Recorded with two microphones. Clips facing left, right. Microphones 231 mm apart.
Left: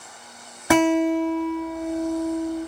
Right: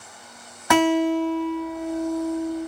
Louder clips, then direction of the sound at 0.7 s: Left 1 dB; 30° left (ahead or behind).